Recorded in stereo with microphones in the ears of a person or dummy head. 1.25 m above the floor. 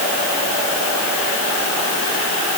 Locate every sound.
Only background noise.